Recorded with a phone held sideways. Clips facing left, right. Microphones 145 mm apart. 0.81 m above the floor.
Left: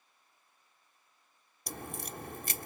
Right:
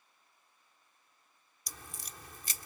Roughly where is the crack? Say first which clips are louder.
Left 10 dB; left.